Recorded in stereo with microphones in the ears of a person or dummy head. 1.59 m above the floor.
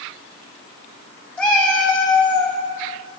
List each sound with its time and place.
1.4 s a cat meowing: 5° left (ahead or behind), 3 m